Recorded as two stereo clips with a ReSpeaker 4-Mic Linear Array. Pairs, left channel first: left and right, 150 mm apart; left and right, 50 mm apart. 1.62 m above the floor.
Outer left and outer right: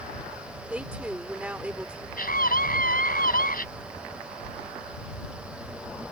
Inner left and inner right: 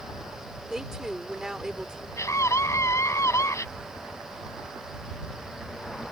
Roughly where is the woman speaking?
Centre.